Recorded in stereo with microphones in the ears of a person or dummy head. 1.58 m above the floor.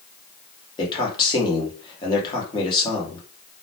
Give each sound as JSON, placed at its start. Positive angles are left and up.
{"t": 0.8, "sound": "a man speaking", "side_deg": 30, "distance_m": 0.9}